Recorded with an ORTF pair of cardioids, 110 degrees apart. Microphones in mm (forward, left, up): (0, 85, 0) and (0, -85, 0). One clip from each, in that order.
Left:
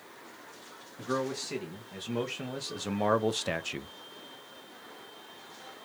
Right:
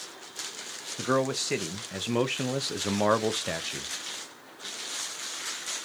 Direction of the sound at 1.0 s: 60° right.